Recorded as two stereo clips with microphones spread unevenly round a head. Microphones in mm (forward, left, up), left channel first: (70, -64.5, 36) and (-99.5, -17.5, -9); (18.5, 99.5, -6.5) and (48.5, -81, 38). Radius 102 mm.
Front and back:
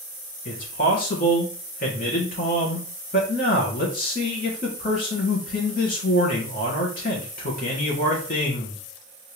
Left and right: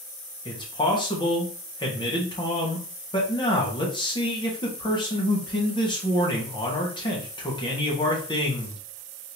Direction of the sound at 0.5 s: 30° left.